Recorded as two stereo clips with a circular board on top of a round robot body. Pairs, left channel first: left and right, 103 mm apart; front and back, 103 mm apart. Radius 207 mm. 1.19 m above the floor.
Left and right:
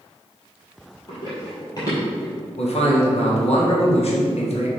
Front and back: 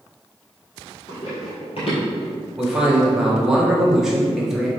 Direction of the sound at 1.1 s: 45° left.